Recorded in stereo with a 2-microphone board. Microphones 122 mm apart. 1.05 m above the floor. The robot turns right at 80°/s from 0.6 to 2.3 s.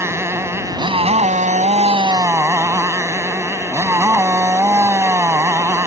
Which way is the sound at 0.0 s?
160° right.